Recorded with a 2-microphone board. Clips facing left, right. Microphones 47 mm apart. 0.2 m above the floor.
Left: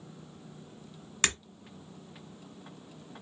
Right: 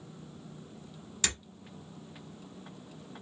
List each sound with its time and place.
1.2 s breaking glass: 50° left (ahead or behind), 1.3 m